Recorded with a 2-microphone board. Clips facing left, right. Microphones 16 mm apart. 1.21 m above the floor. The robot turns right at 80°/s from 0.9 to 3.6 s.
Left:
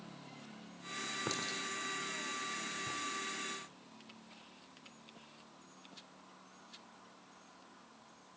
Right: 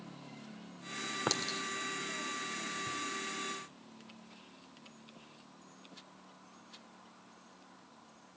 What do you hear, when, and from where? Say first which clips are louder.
1.3 s a clink: right 6 dB; 40° right (ahead or behind), 3 m; by 3.0 s 80° left, 3 m